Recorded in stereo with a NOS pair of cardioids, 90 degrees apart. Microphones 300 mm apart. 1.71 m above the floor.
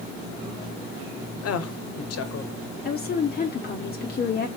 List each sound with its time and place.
1.4 s a woman speaking: 60° left, 1.1 m
2.9 s a woman speaking: 35° left, 1.0 m